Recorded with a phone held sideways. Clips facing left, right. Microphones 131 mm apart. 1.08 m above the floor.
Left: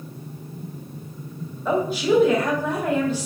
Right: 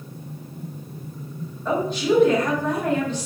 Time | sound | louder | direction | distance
1.6 | a woman speaking | left 1 dB | 10° left (ahead or behind) | 1.6 m